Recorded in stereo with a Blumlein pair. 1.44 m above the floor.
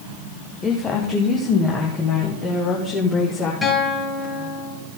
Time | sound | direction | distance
0.6 | a woman speaking | 20° left | 1.3 m
3.6 | a guitar | 15° left | 4.5 m